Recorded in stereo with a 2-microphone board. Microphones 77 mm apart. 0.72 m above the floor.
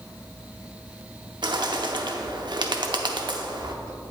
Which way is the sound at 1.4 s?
75° right (ahead or behind).